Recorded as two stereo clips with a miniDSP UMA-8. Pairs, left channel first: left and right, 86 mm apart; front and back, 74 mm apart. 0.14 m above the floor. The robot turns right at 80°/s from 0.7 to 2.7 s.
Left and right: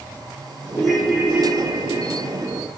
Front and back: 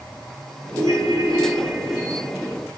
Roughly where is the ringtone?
Behind.